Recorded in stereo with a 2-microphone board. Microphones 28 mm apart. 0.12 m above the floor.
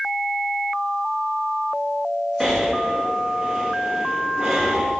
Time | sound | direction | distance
2.4 | breathing | 10° right (ahead or behind) | 4 m